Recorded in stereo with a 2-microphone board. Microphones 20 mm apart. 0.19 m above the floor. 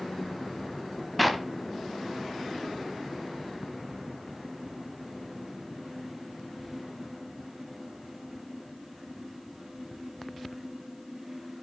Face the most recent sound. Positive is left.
turn(degrees=-5)  # may be behind; listen again after turning